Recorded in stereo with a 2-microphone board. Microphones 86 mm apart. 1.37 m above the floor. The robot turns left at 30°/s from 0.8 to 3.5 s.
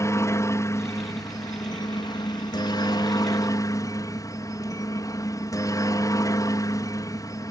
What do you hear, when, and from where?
0.0 s a helicopter: 135° left; by 7.5 s 55° left